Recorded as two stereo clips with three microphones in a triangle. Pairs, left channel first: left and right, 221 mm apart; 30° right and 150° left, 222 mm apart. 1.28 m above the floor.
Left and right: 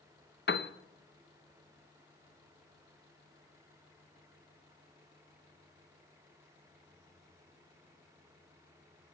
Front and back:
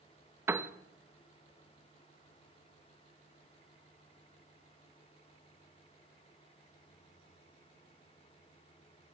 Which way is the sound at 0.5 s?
75° left.